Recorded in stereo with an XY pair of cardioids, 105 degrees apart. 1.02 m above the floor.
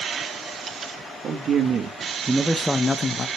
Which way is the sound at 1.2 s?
55° right.